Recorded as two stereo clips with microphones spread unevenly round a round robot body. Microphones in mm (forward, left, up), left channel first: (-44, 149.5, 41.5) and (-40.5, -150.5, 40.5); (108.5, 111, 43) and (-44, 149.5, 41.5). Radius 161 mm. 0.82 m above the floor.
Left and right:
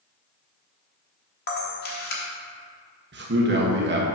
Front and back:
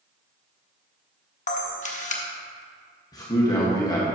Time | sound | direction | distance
1.5 | a camera shutter | 30° left | 1.2 m
3.1 | a man speaking | 70° right | 1.2 m